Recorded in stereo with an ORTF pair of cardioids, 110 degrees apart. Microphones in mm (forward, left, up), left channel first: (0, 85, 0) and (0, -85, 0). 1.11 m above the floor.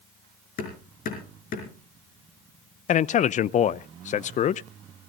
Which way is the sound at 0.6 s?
60° left.